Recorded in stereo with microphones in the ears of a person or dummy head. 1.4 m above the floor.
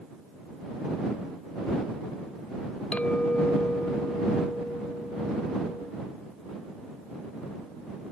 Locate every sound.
2.9 s a clink: 5° left (ahead or behind)